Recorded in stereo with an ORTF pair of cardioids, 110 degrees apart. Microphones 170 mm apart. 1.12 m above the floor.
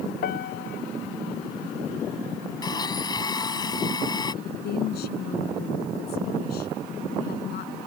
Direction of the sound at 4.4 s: 70° left.